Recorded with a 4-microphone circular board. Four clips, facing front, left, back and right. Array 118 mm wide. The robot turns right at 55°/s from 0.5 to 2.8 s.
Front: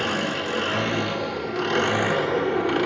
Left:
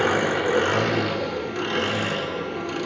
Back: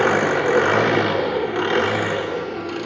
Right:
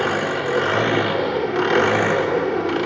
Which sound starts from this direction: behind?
An engine running, at 0.0 s.